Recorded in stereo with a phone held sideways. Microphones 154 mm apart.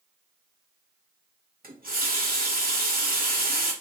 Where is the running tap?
70° right (ahead or behind), 0.7 m.